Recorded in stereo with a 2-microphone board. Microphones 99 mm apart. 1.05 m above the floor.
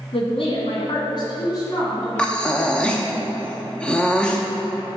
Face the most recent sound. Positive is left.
turn(degrees=10)  # may be behind; listen again after turning